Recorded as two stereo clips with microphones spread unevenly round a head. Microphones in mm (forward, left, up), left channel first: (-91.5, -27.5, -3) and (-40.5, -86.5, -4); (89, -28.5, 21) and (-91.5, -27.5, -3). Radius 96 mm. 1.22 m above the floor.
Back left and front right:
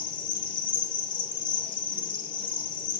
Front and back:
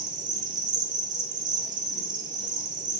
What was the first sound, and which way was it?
An insect, 115° left.